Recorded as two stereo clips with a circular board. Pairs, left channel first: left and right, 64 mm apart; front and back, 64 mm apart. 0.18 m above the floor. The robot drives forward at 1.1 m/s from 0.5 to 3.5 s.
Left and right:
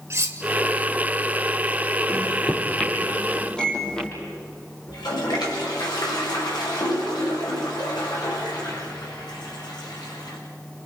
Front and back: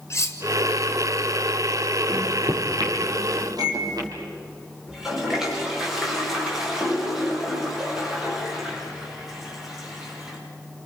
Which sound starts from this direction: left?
A toilet flushing, at 4.9 s.